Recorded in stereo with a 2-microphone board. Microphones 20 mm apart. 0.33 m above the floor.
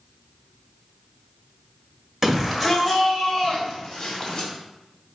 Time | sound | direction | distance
2.2 | a shout | 15° right (ahead or behind) | 1.2 m